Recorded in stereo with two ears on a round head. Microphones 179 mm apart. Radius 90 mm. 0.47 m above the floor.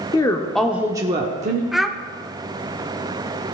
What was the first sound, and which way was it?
A woman speaking, 20° left (ahead or behind).